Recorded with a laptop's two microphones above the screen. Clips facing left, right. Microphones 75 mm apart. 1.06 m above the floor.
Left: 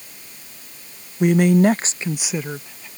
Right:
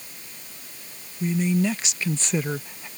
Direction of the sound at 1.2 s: 80° left.